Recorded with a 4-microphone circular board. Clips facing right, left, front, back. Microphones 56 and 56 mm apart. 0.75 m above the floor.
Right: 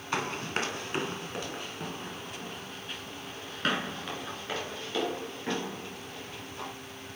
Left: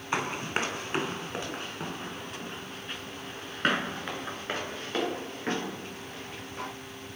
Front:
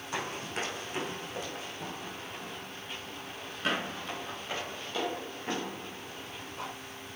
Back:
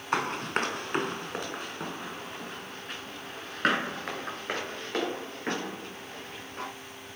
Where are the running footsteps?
155° left, 1.5 m; by 6.7 s 140° left, 5 m.